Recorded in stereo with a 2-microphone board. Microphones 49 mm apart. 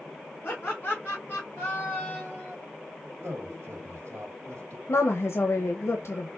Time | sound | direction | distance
0.4 | laughter | 45° left (ahead or behind) | 2.5 m
3.2 | a man speaking | 65° right (ahead or behind) | 2 m
4.9 | a woman speaking | 65° left (ahead or behind) | 0.7 m